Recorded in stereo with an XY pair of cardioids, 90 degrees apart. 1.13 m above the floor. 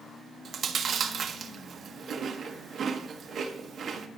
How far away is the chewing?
About 0.8 m.